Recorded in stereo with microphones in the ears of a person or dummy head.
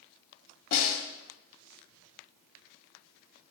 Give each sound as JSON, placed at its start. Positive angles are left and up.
{"t": 0.7, "sound": "a snare drum", "side_deg": 55, "distance_m": 1.6}